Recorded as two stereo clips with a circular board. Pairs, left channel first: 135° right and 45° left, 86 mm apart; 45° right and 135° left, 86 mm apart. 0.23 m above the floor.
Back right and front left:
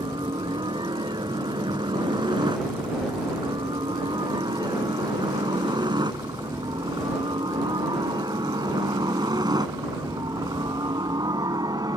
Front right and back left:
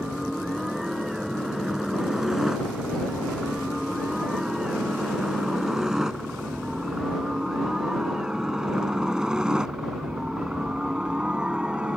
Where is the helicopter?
50° left; by 12.0 s 60° left.